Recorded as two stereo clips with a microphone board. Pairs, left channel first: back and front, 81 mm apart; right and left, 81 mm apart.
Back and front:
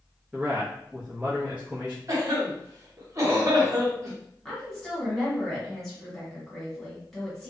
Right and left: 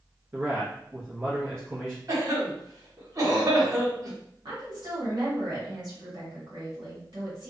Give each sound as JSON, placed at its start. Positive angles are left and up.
{"t": 0.3, "sound": "a man speaking", "azimuth_deg": 60, "distance_m": 0.7}
{"t": 2.1, "sound": "a cough", "azimuth_deg": 45, "distance_m": 1.1}
{"t": 4.5, "sound": "a woman speaking", "azimuth_deg": 95, "distance_m": 1.5}